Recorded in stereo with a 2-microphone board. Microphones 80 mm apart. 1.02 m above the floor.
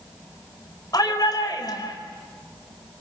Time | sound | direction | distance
0.9 | a shout | 50° left (ahead or behind) | 5 m